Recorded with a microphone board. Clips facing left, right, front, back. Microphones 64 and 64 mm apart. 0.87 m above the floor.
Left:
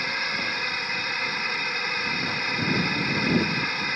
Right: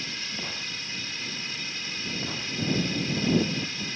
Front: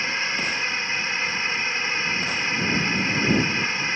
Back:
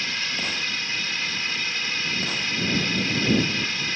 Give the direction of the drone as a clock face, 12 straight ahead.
10 o'clock.